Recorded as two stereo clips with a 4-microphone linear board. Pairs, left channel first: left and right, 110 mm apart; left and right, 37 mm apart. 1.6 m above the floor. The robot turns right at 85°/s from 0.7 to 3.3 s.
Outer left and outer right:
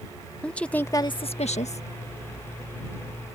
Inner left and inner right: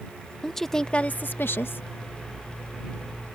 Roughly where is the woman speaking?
Ahead.